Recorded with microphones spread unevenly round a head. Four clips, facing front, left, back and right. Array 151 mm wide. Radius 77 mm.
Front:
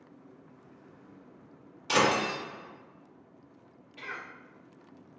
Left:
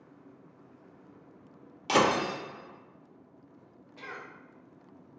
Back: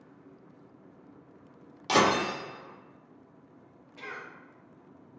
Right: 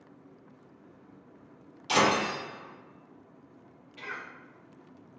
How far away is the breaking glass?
About 1.0 m.